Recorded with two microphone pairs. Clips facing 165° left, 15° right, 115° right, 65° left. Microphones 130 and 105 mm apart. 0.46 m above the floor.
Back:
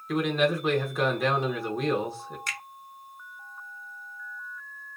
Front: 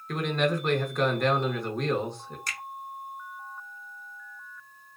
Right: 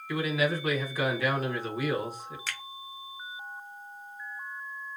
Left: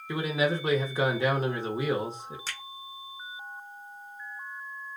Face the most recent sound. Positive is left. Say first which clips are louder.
# back 1 dB, right 1 dB
turn(degrees=20)